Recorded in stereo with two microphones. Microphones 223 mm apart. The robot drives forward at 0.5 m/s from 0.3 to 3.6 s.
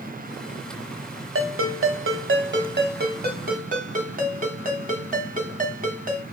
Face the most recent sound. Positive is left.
turn(degrees=-40)  # may be behind; listen again after turning